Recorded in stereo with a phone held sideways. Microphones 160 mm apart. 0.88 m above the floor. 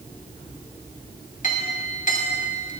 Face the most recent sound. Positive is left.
turn(degrees=55)  # may be behind; listen again after turning